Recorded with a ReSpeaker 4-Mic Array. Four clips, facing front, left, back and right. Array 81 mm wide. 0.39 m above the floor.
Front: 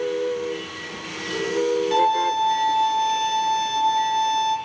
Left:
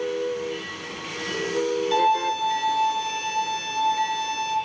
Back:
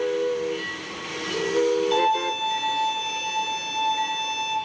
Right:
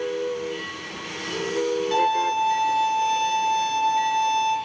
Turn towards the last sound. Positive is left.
turn(degrees=-50)